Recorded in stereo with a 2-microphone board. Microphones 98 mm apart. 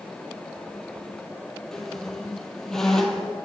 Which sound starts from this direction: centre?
A squeak, at 1.7 s.